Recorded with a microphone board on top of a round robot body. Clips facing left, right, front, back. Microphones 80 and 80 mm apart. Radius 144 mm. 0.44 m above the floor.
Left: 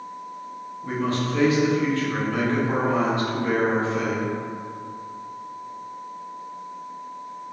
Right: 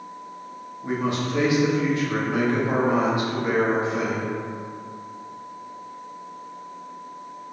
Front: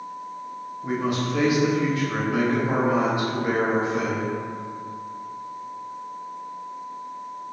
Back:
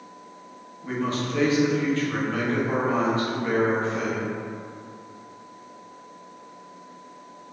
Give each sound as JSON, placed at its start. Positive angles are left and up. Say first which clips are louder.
{"t": 0.8, "sound": "a man speaking", "louder": "even, front 2 dB", "azimuth_deg": -50, "distance_m": 1.1}